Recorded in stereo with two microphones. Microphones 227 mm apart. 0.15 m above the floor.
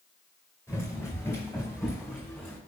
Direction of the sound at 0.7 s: 10° left (ahead or behind).